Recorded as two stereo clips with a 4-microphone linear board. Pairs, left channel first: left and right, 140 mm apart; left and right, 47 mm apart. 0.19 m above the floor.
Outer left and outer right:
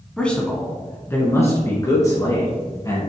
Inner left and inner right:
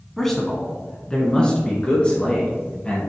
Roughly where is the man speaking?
Centre.